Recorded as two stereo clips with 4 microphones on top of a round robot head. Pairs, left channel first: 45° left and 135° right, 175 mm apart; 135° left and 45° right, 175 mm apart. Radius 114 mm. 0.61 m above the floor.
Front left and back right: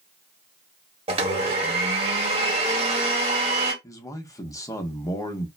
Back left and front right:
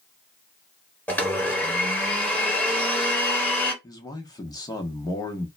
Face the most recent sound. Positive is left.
turn(degrees=95)